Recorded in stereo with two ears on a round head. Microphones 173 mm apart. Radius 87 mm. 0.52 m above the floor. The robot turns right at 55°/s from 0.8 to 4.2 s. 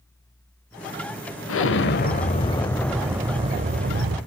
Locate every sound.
1.5 s an explosion: 100° left, 0.7 m; by 4.2 s 115° right, 0.7 m